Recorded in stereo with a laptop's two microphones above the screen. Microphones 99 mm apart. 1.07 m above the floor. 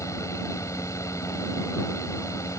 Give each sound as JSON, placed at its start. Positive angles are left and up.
{"t": 0.0, "sound": "a fan", "side_deg": 30}